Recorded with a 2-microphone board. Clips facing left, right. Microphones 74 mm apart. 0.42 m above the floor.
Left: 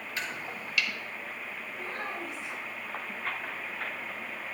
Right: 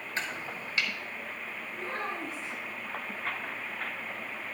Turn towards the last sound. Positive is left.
turn(degrees=-40)  # may be behind; listen again after turning